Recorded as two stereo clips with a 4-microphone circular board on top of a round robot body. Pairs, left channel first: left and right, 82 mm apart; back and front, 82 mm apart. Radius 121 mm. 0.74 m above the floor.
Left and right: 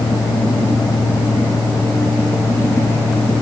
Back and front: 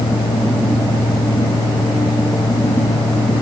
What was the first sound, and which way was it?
Only background noise.